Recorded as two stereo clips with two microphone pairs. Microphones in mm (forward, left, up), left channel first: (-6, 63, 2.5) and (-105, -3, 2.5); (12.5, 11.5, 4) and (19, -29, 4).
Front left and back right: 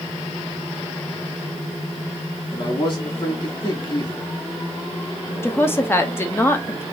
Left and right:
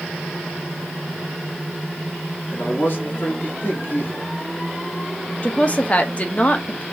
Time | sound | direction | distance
2.5 | a man speaking | 70° left | 2 m
5.4 | a woman speaking | 90° left | 0.6 m